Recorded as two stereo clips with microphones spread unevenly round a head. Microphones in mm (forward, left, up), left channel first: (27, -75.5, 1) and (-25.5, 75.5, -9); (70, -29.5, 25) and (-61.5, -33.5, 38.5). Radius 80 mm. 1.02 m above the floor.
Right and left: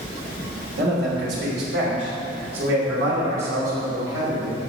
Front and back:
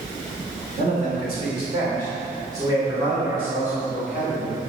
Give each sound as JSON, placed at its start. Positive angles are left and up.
{"t": 0.8, "sound": "a man speaking", "azimuth_deg": 130, "distance_m": 2.5}